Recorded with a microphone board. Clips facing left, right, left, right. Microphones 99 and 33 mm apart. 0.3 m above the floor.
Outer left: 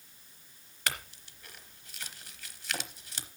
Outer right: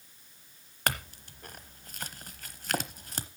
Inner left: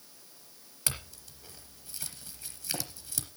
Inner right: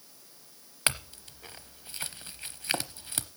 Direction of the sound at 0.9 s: 50° right (ahead or behind).